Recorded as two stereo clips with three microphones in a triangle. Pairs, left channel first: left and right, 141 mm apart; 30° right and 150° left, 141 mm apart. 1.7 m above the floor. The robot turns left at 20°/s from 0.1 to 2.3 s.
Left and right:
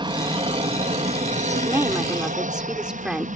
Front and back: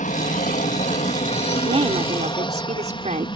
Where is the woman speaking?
160° right; by 3.3 s 175° right.